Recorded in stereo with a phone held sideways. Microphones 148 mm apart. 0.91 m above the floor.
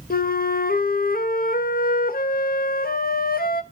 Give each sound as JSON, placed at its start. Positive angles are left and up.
{"t": 0.1, "sound": "a flute", "side_deg": 80, "distance_m": 0.5}